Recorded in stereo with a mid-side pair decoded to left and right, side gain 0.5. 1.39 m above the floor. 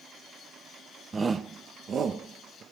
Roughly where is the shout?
Ahead right.